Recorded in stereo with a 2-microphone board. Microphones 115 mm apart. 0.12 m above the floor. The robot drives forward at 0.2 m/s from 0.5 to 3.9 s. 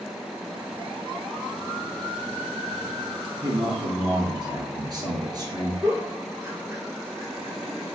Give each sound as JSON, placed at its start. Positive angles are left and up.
{"t": 3.4, "sound": "a man speaking", "side_deg": -40, "distance_m": 1.5}
{"t": 5.8, "sound": "a giggle", "side_deg": -25, "distance_m": 1.0}